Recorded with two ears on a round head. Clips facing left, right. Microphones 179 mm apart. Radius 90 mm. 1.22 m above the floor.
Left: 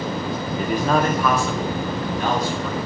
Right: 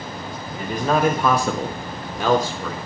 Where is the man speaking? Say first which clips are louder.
Left 1 dB; 20° left (ahead or behind), 0.6 m; by 2.8 s 70° right (ahead or behind), 1.2 m.